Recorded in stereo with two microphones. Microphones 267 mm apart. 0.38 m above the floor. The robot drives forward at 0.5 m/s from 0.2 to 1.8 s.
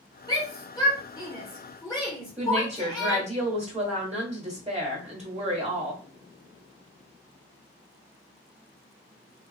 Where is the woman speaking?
25° right (ahead or behind), 1.4 m.